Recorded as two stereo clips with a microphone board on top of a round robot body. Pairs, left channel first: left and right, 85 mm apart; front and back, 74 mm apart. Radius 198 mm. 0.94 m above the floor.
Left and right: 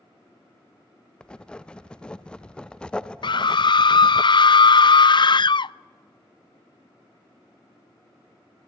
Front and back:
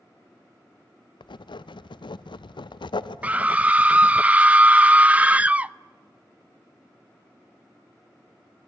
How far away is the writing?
About 0.7 m.